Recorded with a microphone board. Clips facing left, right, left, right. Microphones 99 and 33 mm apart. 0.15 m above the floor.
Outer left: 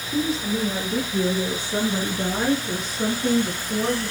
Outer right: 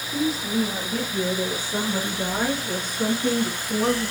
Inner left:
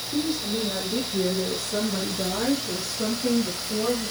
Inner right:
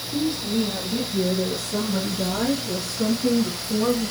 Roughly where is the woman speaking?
Left.